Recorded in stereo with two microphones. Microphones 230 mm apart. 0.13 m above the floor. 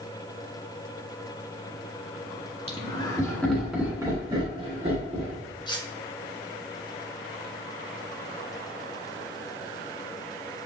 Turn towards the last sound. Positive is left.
turn(degrees=20)  # may be behind; listen again after turning